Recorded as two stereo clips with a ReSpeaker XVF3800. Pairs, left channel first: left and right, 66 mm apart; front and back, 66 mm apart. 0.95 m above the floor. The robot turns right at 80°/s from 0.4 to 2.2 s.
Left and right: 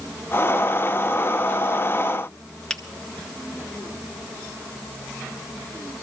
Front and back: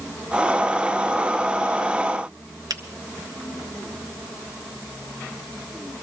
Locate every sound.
2.7 s a finger snap: 170° left, 0.9 m